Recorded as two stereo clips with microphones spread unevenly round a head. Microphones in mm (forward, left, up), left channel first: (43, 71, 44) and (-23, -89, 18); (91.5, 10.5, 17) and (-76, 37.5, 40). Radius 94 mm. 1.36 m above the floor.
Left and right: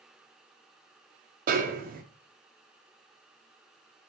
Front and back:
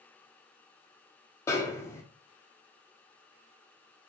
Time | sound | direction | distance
1.5 | a snare drum | 80° right | 0.6 m